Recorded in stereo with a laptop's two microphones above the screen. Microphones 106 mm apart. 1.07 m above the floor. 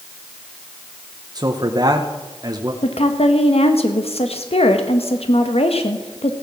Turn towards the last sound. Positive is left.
turn(degrees=70)  # may be behind; listen again after turning